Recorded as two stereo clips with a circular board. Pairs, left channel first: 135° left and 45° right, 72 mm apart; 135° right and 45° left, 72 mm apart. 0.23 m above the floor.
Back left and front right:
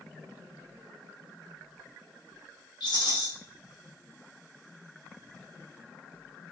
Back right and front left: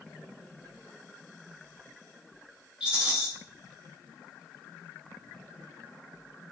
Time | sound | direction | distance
2.8 | a rattle | 120° left | 1.0 m